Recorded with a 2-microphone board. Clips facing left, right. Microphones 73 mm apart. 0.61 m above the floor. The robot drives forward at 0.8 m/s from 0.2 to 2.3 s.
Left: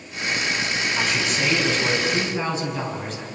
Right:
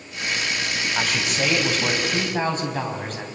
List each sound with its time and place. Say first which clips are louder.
0.9 s a man speaking: right 1 dB; 55° right (ahead or behind), 4.5 m; by 3.2 s 50° right (ahead or behind), 5 m